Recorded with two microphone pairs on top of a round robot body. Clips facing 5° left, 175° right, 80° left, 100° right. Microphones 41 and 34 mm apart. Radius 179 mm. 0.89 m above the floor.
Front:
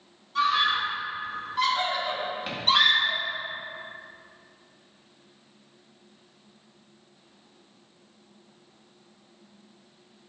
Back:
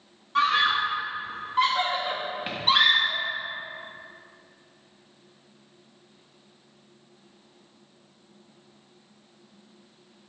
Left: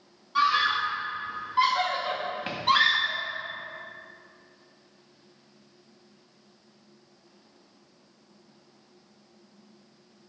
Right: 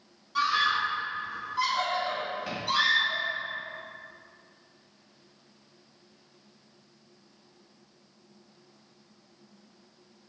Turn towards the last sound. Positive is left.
turn(degrees=105)